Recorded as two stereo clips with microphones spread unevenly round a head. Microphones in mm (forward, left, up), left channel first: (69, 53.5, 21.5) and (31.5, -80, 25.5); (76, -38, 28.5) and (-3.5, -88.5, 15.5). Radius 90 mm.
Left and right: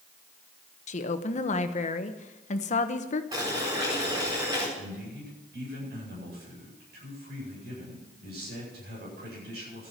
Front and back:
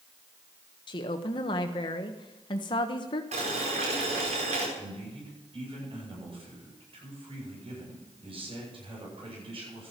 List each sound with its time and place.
0.9 s a woman speaking: 55° left, 1.0 m
3.3 s boiling: 175° right, 4.5 m
4.8 s a man speaking: 120° right, 9 m